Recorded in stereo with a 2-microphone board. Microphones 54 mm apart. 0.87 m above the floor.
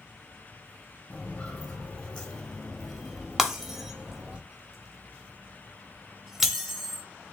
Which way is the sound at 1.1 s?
30° left (ahead or behind).